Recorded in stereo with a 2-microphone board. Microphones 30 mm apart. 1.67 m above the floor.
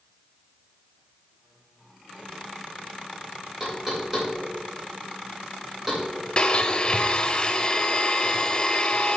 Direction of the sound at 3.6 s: 10° right (ahead or behind).